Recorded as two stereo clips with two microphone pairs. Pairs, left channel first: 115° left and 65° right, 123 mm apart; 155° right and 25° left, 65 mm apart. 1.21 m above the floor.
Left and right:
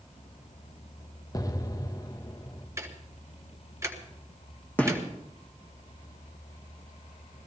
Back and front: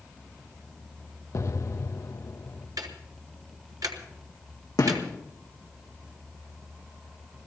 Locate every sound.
1.3 s an explosion: 175° left, 0.6 m
2.8 s ticking: 5° left, 1.2 m
4.8 s a gunshot: 165° right, 2.0 m